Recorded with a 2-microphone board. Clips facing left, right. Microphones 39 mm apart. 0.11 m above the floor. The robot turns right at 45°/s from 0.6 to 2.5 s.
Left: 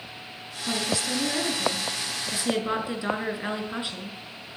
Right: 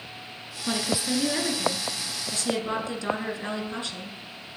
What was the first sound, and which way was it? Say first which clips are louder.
A woman speaking: right 1 dB; 50° right.